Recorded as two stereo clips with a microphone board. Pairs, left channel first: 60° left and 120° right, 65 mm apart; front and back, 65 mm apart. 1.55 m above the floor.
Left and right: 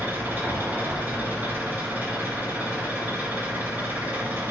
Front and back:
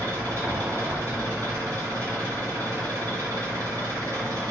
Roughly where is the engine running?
Behind.